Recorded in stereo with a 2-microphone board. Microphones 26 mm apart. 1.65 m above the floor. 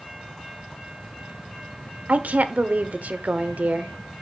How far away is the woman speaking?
About 0.7 m.